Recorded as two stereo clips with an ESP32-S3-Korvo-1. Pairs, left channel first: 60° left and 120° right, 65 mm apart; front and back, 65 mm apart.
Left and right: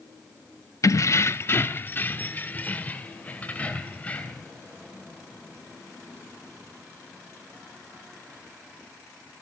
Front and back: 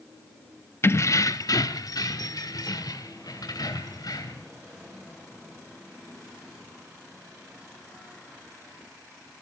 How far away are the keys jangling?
About 0.6 m.